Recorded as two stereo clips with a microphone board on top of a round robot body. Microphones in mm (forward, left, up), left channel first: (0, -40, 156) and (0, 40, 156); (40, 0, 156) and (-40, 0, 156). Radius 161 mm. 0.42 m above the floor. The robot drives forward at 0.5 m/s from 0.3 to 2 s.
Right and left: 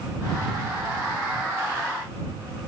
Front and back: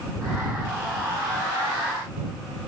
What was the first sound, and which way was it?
Only background noise.